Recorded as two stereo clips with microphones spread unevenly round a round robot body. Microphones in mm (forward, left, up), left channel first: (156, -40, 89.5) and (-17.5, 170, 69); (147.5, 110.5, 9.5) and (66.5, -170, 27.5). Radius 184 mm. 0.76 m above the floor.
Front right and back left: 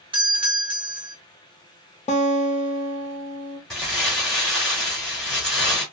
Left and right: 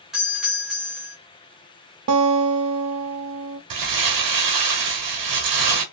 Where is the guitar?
115° right, 0.6 m.